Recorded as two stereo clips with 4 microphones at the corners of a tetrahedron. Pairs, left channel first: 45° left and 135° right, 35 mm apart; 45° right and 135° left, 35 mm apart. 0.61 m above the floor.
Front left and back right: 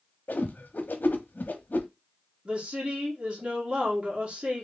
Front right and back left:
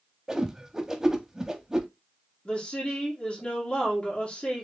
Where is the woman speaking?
80° right, 1.8 m.